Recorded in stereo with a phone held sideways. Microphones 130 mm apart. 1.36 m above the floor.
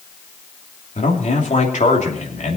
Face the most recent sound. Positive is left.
turn(degrees=70)  # may be behind; listen again after turning